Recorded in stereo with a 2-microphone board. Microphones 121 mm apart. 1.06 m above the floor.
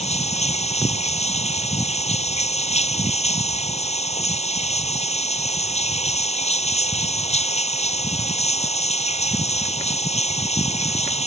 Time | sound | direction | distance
0.0 | running water | 65° left (ahead or behind) | ?